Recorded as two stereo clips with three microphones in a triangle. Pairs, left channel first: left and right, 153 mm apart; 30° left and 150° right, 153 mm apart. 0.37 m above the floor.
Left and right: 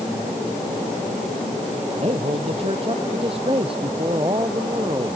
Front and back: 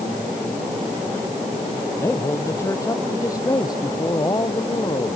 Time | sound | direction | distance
2.0 | a man speaking | 40° right | ?